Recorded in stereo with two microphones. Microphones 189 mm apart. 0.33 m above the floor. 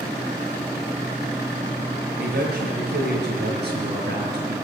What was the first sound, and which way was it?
A man speaking, 65° right (ahead or behind).